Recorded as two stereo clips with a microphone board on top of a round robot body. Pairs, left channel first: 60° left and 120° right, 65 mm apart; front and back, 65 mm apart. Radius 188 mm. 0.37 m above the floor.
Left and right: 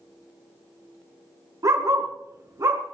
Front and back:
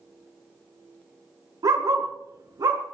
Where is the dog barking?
155° right, 2.5 m.